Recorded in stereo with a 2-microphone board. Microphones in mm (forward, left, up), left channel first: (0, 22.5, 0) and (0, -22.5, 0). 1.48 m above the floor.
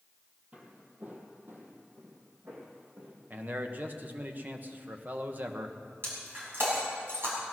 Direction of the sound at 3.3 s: 40° right (ahead or behind).